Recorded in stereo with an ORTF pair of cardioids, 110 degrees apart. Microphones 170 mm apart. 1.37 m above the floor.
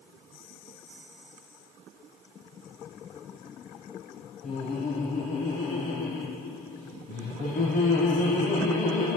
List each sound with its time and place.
4.4 s laughter: 50° left, 0.8 m